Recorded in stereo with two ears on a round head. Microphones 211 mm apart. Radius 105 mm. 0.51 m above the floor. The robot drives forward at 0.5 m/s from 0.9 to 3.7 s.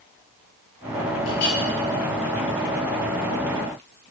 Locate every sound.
1.3 s a clink: 75° left (ahead or behind), 6 m; by 1.6 s 80° left, 6 m